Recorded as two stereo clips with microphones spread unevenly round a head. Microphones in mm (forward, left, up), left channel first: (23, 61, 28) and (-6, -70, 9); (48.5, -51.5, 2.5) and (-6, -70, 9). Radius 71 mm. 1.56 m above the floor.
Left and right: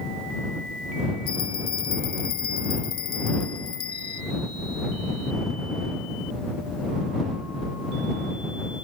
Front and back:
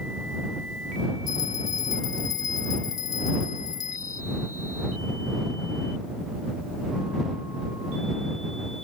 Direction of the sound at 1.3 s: 30° left.